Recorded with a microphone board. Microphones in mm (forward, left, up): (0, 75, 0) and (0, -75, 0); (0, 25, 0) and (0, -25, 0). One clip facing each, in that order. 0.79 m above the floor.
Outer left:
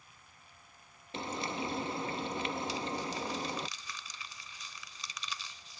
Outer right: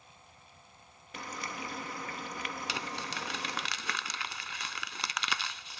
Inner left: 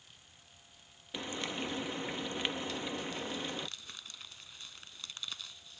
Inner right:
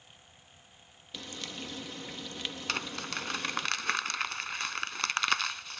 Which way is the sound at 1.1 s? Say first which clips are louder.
Outer left 5 dB, inner left 4 dB; 25° left (ahead or behind).